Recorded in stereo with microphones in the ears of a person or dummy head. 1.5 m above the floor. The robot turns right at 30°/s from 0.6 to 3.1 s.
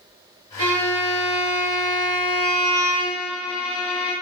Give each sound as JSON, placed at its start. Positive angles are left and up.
{"t": 0.6, "sound": "a violin", "azimuth_deg": -80, "distance_m": 0.7}